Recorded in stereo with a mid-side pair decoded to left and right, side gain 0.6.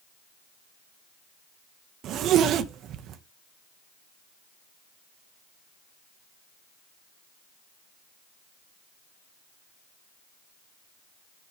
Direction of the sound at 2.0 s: 55° right.